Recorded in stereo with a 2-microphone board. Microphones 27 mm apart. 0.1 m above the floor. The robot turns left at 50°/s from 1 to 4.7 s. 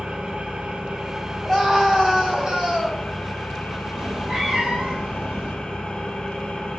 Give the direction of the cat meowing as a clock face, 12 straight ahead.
12 o'clock.